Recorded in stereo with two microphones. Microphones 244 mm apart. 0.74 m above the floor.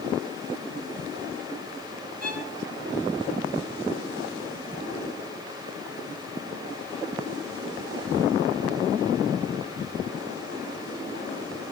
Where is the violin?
35° right (ahead or behind), 4 m.